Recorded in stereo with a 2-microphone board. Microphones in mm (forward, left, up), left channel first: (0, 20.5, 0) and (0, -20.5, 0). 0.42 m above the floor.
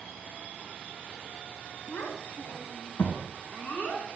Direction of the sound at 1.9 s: 75° left (ahead or behind).